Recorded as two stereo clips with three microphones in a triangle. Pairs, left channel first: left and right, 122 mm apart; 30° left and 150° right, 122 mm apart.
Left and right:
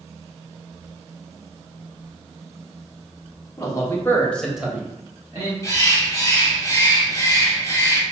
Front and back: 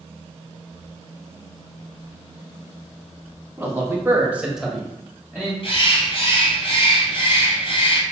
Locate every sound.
3.6 s a man speaking: 145° left, 1.7 m; by 5.5 s 40° right, 1.6 m
5.6 s a bird: 35° left, 1.3 m